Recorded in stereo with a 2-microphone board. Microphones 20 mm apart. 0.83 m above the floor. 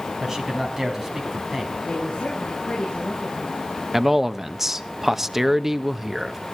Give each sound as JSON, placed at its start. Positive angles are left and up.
{"t": 0.2, "sound": "a man speaking", "side_deg": -20, "distance_m": 5.5}
{"t": 1.8, "sound": "a woman speaking", "side_deg": 45, "distance_m": 7.0}
{"t": 3.9, "sound": "a man speaking", "side_deg": -15, "distance_m": 0.8}